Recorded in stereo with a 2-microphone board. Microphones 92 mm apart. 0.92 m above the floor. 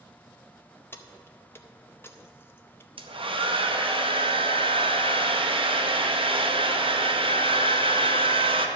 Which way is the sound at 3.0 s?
70° right (ahead or behind).